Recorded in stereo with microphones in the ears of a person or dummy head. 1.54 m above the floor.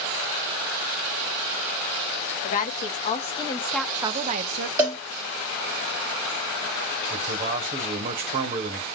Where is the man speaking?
50° right (ahead or behind), 1.3 m.